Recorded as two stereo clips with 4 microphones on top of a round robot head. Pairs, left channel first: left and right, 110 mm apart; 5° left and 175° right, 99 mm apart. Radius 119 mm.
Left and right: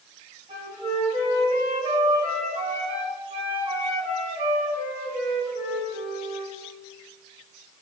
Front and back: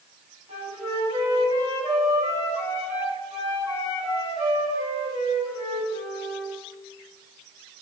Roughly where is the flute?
Behind right.